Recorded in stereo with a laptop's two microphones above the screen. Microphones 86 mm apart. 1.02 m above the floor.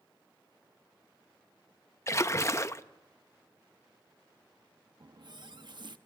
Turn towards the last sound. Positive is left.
turn(degrees=-60)  # may be behind; listen again after turning